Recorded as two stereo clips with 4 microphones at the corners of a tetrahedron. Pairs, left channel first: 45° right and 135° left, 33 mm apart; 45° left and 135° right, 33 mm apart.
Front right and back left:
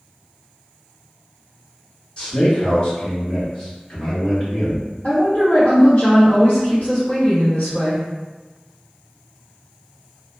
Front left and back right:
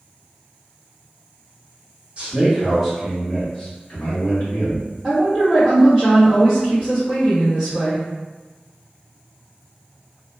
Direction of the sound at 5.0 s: 55° right.